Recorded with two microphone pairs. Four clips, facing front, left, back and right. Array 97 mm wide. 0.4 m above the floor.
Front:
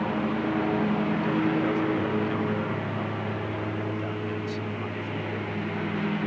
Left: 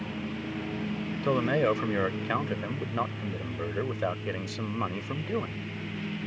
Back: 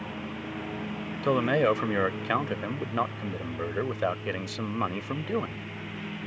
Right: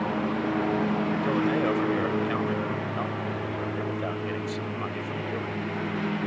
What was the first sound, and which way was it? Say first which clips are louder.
A lawn mower: right 9 dB, front 10 dB; 60° right.